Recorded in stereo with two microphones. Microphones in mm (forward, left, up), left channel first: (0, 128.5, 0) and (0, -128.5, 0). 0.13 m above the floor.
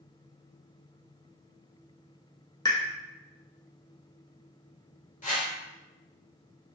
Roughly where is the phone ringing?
I don't hear a phone ringing.